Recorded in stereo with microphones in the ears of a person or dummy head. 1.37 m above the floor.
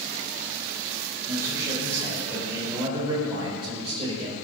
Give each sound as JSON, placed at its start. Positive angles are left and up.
{"t": 1.3, "sound": "a man speaking", "side_deg": -15, "distance_m": 7.0}